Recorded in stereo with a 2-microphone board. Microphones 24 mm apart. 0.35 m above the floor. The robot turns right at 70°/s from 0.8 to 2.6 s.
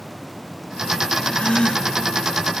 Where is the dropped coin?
I don't hear a dropped coin.